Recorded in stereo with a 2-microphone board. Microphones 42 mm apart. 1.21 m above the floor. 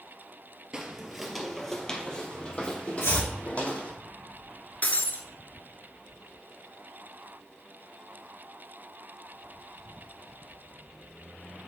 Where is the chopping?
90° left, 4 m.